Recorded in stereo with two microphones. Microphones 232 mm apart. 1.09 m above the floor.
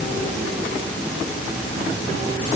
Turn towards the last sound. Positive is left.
No sound to turn to.